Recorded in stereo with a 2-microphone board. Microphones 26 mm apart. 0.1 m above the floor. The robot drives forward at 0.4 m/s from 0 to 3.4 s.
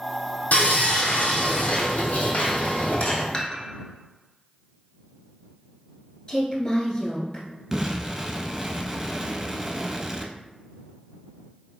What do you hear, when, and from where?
0.5 s sawing: 70° left (ahead or behind), 1.4 m; by 3.2 s 55° left (ahead or behind), 1.6 m
3.3 s dishes clattering: 20° left (ahead or behind), 1.1 m
6.3 s a woman speaking: 35° left (ahead or behind), 1.3 m
7.7 s an explosion: 15° right (ahead or behind), 0.7 m